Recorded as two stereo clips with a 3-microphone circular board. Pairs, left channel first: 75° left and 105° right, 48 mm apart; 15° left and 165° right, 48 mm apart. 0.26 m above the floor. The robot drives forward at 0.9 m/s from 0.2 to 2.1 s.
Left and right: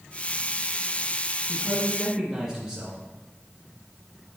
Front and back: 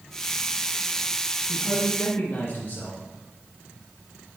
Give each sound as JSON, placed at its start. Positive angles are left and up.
{"t": 1.5, "sound": "a man speaking", "azimuth_deg": -25, "distance_m": 3.5}